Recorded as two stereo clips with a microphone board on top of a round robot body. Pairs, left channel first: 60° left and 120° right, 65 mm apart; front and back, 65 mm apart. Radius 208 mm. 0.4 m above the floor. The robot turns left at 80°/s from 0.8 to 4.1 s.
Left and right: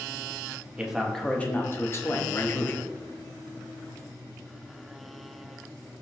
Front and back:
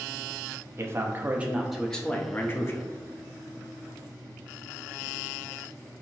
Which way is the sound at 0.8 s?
170° left.